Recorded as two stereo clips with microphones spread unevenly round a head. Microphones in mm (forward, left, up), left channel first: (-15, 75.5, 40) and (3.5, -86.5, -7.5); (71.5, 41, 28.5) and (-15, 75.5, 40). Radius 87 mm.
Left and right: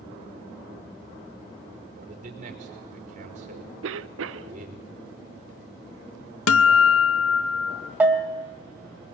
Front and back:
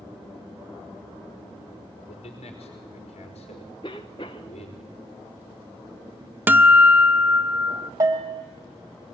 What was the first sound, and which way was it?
A man speaking, 35° right.